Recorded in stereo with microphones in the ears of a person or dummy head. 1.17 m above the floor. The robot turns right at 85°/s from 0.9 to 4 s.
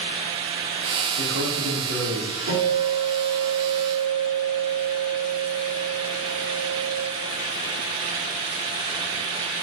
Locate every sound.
1.2 s a man speaking: 130° right, 3.5 m; by 2.4 s 30° right, 3.5 m
2.5 s a guitar: 60° right, 3.5 m; by 7.0 s 70° left, 3.5 m